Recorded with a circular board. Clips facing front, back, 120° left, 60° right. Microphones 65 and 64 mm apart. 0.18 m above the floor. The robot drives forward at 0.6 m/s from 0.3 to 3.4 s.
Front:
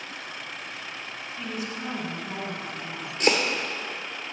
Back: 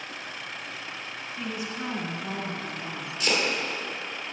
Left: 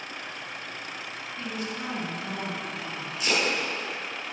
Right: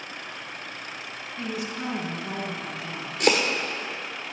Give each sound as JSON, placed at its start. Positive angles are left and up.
{"t": 1.4, "sound": "a woman speaking", "azimuth_deg": -120, "distance_m": 1.3}
{"t": 3.2, "sound": "chopping", "azimuth_deg": -35, "distance_m": 1.4}